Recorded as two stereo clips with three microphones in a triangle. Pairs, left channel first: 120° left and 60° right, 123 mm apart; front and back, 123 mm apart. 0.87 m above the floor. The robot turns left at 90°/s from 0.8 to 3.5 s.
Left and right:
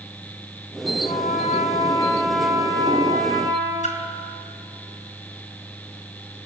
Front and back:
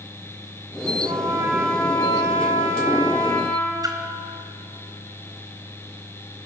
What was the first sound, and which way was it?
A trumpet, 150° left.